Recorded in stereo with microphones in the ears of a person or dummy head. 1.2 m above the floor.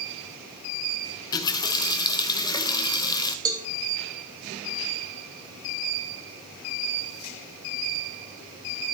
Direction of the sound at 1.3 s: 20° left (ahead or behind).